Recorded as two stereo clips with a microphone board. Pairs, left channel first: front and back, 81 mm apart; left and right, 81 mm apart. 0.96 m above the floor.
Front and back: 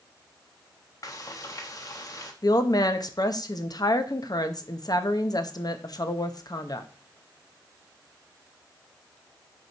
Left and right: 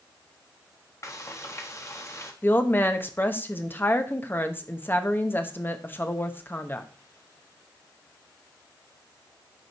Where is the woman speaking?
30° left, 0.9 m.